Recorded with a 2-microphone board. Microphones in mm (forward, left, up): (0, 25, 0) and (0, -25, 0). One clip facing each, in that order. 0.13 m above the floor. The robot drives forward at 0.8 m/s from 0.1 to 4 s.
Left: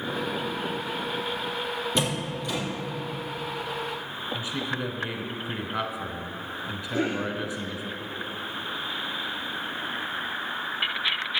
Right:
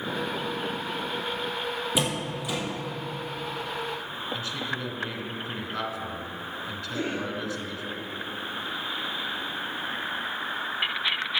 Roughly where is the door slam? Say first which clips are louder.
Even; centre.